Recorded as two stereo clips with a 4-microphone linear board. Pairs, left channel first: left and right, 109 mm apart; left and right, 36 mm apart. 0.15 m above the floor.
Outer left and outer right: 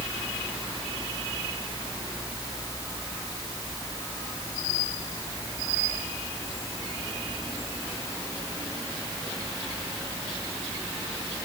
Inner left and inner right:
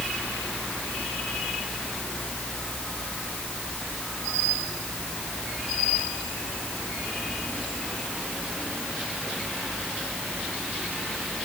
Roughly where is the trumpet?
I don't hear a trumpet.